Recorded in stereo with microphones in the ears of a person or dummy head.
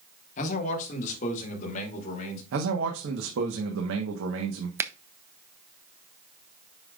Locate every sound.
0.4 s a man speaking: 45° left (ahead or behind), 1.7 m
2.5 s a man speaking: 80° right, 1.2 m
4.8 s a finger snap: 15° right (ahead or behind), 0.5 m